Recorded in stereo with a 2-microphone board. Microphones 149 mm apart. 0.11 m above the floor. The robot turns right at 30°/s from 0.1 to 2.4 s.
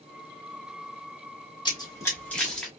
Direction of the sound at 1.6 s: 30° left (ahead or behind).